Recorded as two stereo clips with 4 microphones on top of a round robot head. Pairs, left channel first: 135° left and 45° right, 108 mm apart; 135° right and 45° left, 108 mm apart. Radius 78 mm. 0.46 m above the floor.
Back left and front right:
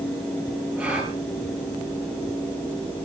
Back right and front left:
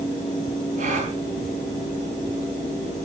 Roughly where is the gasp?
Ahead left.